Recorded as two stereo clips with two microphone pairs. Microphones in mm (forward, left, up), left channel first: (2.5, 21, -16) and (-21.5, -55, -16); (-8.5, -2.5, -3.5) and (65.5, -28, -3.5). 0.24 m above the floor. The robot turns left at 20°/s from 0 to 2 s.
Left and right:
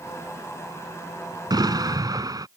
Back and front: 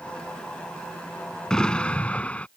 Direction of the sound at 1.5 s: 120° right.